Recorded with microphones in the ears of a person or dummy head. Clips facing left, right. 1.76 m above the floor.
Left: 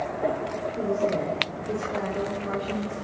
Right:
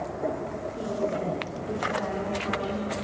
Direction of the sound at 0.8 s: 30° left (ahead or behind).